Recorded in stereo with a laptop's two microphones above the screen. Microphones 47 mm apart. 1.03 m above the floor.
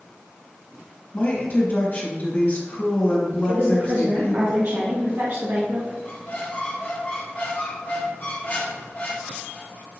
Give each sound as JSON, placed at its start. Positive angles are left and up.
{"t": 1.1, "sound": "a woman speaking", "side_deg": 30, "distance_m": 1.9}
{"t": 3.5, "sound": "a woman speaking", "side_deg": -50, "distance_m": 0.9}
{"t": 6.0, "sound": "a squeak", "side_deg": 40, "distance_m": 0.9}